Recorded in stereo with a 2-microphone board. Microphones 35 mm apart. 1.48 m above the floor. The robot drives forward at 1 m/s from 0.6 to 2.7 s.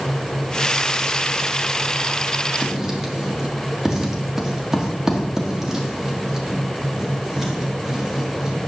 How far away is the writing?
About 1.7 m.